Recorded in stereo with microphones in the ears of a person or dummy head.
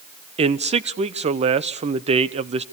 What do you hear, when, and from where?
0.4 s a man speaking: 40° right (ahead or behind), 1.0 m